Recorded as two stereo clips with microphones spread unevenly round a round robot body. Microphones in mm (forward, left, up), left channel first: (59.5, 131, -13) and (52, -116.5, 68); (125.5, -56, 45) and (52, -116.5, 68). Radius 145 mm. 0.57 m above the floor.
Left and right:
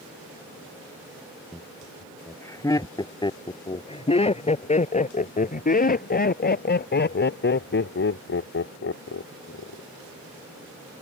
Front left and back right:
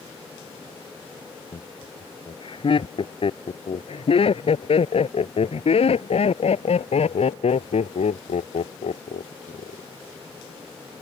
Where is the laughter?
5° left; by 9.8 s 50° left.